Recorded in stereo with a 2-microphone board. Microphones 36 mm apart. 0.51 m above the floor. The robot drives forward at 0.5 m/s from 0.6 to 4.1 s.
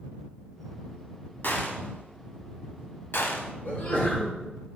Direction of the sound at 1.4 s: 60° left (ahead or behind).